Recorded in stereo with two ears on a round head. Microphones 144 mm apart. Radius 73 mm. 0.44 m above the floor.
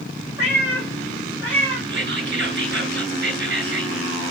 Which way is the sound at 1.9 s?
70° right (ahead or behind).